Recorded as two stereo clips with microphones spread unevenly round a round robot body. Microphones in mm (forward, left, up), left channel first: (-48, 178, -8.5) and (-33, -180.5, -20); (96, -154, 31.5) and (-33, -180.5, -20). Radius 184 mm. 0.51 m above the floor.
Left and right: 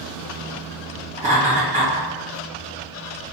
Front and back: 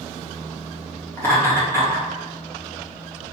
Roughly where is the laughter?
Right.